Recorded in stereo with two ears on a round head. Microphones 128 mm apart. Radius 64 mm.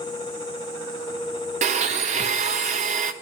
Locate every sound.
1.6 s a blender: 50° right (ahead or behind), 1.1 m